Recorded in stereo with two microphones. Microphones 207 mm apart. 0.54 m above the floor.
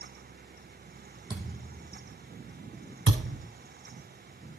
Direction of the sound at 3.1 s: 80° right.